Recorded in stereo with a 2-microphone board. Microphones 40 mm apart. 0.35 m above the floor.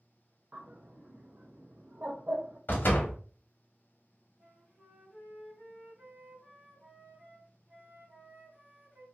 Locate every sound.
0.5 s a bird: 45° right (ahead or behind), 0.6 m
2.7 s a door slam: 55° left (ahead or behind), 1.0 m
4.4 s a flute: 55° right (ahead or behind), 1.8 m